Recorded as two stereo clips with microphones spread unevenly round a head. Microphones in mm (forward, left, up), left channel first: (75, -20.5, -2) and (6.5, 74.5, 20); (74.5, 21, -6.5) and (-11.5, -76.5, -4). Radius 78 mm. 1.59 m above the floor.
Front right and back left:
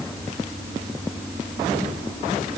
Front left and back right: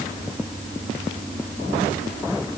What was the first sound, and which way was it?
Only background noise.